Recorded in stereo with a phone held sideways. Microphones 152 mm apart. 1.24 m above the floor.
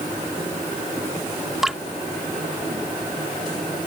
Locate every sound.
1.6 s dripping: centre (ahead or behind)